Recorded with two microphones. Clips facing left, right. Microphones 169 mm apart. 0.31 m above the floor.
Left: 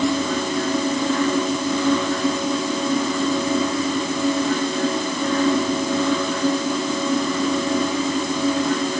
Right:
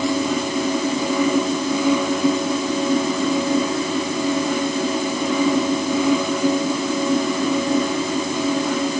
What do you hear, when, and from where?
Only background noise.